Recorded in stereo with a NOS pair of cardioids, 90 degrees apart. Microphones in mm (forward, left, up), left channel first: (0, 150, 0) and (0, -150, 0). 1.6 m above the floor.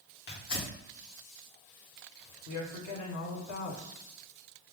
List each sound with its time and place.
0.3 s tearing paper: 50° left, 1.8 m
2.5 s a woman speaking: 60° left, 1.7 m